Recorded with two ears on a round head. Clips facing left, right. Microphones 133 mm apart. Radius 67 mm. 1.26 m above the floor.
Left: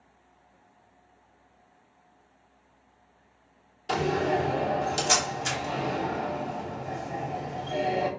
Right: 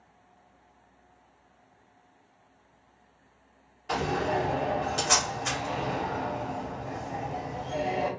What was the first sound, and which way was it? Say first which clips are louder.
A door slam: left 2 dB; 35° left (ahead or behind).